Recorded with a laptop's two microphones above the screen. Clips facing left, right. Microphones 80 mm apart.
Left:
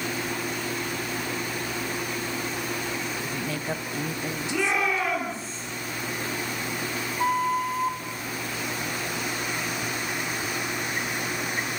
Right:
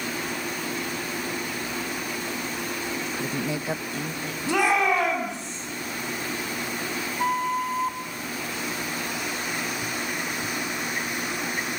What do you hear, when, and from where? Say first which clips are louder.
3.1 s a woman speaking: right 2 dB; 40° right (ahead or behind), 1.2 m; by 5.5 s 35° left (ahead or behind), 3 m
4.5 s a shout: right 5 dB; 70° right (ahead or behind), 9.5 m
7.2 s a flute: left 1 dB; centre (ahead or behind), 1.0 m